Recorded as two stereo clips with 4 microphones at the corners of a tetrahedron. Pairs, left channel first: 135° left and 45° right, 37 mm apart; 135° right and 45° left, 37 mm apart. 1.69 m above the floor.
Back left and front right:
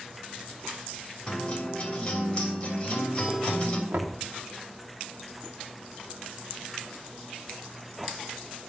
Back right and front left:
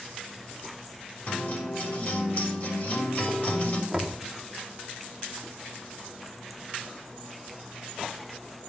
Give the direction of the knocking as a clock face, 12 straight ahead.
2 o'clock.